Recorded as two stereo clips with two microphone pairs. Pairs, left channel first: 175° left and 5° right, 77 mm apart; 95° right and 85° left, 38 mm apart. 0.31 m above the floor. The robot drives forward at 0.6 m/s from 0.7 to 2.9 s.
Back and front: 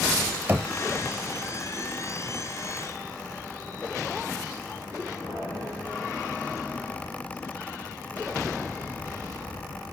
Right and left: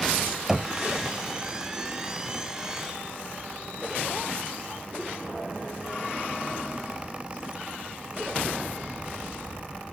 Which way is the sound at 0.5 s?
15° left.